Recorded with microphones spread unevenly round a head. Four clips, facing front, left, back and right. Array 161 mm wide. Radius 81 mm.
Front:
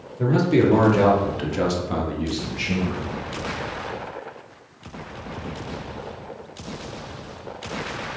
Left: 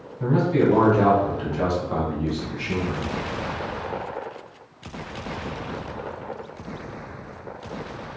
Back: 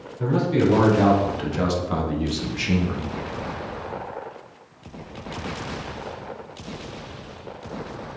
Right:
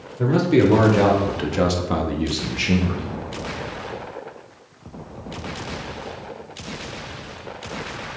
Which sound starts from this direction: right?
A man speaking, at 0.2 s.